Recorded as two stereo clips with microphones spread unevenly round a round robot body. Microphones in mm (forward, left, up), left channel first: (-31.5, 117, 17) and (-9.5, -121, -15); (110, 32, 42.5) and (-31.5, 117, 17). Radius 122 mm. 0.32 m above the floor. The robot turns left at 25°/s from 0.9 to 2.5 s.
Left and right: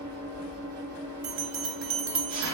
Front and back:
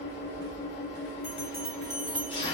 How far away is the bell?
About 0.7 m.